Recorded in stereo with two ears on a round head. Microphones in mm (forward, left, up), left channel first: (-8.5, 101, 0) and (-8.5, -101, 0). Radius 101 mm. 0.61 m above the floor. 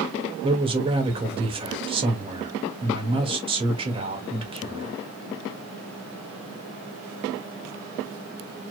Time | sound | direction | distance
0.4 | a man speaking | 25° right (ahead or behind) | 2 m